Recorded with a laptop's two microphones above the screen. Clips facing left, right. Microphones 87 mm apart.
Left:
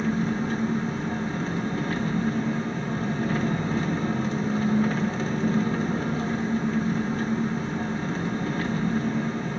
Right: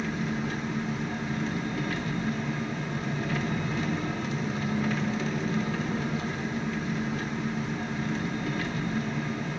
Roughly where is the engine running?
Left.